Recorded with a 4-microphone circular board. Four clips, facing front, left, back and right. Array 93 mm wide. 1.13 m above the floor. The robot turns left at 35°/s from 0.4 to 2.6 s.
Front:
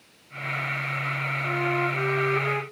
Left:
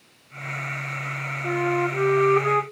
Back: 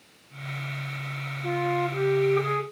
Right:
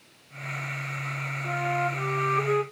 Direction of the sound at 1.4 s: 120° left.